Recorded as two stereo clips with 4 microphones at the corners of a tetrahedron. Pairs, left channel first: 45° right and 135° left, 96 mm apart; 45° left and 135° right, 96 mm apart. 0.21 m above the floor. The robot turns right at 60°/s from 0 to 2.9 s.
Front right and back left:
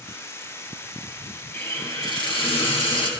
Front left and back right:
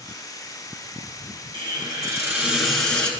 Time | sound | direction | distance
1.5 | a hiss | 115° right | 2.0 m